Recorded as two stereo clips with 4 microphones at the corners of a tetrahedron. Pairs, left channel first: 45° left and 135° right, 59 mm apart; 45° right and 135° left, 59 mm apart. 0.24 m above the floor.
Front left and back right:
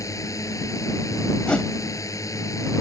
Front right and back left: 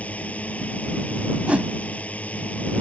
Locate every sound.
0.0 s a drone: 20° left
1.5 s a whoosh: 100° left